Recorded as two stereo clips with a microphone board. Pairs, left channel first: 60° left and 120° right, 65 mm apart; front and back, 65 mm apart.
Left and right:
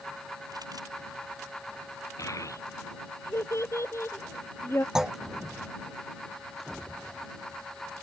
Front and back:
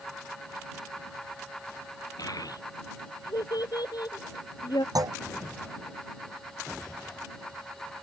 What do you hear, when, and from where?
2.2 s a child speaking: 25° left; by 4.8 s 5° left
5.0 s a clunk: 160° left